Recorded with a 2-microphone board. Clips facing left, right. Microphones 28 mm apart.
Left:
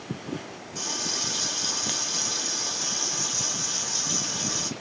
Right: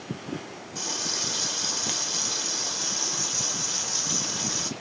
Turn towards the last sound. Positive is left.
turn(degrees=-10)  # may be behind; listen again after turning